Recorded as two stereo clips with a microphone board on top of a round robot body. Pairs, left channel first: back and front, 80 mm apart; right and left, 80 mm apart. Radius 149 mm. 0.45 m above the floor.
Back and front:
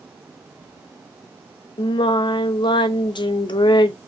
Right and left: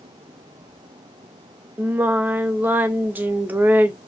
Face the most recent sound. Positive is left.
turn(degrees=160)